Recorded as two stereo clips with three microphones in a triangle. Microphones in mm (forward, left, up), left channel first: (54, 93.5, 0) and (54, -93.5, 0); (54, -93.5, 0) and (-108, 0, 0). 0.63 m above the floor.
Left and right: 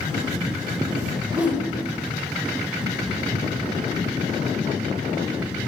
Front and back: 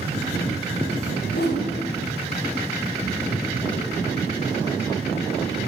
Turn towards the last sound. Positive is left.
turn(degrees=-10)